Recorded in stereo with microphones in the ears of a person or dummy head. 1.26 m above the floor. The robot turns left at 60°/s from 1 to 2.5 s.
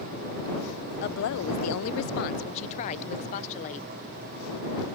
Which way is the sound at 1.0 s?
130° left.